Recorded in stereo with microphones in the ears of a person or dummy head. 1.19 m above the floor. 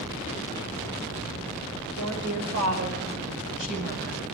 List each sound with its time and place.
2.0 s a woman speaking: 85° right, 4 m; by 4.2 s 50° right (ahead or behind), 5.5 m